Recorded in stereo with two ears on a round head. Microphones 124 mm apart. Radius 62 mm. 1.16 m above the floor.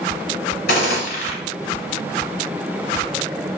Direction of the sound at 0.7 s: 80° left.